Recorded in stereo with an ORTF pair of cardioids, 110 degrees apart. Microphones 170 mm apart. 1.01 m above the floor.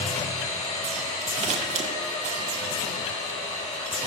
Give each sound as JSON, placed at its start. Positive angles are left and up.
{"t": 0.0, "sound": "a machine running", "azimuth_deg": 45, "distance_m": 5.0}
{"t": 1.4, "sound": "scissors", "azimuth_deg": -45, "distance_m": 2.0}